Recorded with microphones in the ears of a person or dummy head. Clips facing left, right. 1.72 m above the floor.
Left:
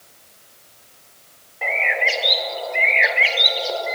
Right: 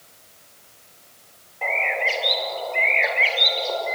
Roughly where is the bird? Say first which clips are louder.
Left 1 dB; centre.